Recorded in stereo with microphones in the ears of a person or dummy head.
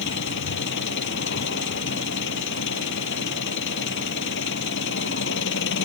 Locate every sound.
0.0 s an engine running: 60° left (ahead or behind)